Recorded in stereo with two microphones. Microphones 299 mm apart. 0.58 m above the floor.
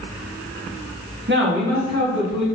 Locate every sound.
1.3 s a man speaking: 35° right (ahead or behind), 1.0 m; by 2.5 s 70° right (ahead or behind), 2 m